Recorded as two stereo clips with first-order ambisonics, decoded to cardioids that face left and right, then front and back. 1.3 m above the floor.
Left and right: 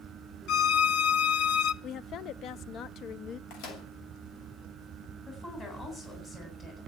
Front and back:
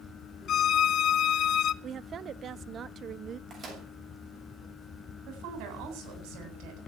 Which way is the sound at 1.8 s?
130° left.